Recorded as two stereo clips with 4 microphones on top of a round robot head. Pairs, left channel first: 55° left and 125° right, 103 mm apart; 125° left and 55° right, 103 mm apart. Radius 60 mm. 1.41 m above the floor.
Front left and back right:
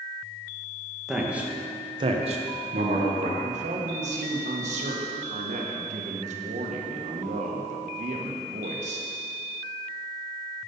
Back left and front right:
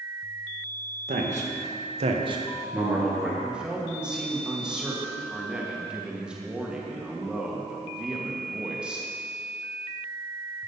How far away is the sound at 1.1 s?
About 1.7 m.